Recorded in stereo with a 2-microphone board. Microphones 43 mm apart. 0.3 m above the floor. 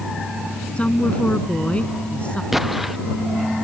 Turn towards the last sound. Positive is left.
turn(degrees=-5)  # may be behind; listen again after turning